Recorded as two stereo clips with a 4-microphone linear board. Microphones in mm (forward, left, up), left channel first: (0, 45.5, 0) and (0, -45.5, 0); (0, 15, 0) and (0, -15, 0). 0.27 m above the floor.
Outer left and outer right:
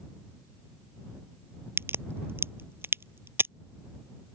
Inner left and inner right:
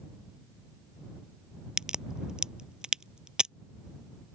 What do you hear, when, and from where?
1.8 s a crack: 25° right (ahead or behind)